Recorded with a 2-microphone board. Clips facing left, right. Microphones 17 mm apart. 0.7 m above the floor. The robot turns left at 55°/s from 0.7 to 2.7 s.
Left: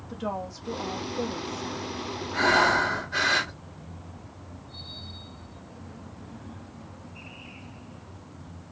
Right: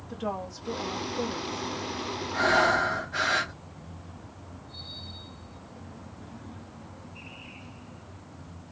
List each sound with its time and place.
0.1 s a woman speaking: 160° left, 1.0 m; by 1.9 s 95° left, 1.0 m
2.3 s breathing: 50° left (ahead or behind), 1.7 m; by 3.5 s 45° left (ahead or behind), 1.7 m